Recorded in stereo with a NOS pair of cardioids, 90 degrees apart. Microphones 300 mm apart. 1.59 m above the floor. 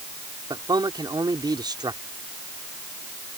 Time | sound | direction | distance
0.5 | a man speaking | 15° right | ?